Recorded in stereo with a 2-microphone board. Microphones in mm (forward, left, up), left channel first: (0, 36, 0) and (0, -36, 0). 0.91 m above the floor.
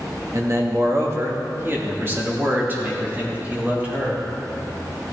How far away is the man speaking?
About 1.3 m.